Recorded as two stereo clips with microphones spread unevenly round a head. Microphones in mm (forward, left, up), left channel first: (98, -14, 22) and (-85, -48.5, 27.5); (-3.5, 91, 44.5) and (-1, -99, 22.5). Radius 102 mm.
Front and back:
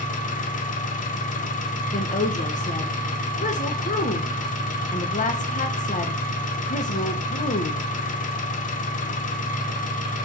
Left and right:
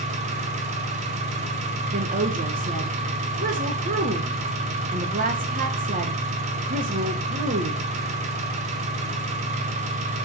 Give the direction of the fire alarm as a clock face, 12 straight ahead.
I don't hear a fire alarm.